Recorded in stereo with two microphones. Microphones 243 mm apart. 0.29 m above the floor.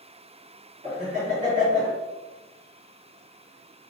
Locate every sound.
0.8 s laughter: 30° right (ahead or behind), 1.8 m